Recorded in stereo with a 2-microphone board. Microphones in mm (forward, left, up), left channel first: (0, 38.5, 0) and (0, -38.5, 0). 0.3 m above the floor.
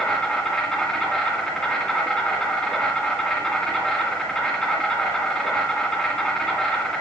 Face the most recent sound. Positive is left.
turn(degrees=10)  # may be behind; listen again after turning